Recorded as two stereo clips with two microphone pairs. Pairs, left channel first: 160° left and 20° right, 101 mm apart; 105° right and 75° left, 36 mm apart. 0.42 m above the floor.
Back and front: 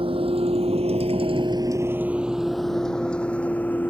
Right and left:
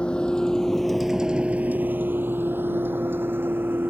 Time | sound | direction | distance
0.0 | a vehicle | 45° right | ?